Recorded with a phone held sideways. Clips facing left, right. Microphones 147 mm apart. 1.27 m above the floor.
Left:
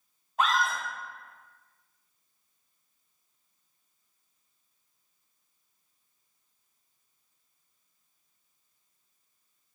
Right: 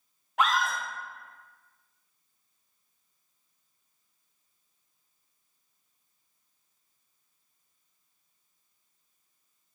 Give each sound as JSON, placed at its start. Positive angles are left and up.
{"t": 0.4, "sound": "a scream", "side_deg": -75, "distance_m": 1.1}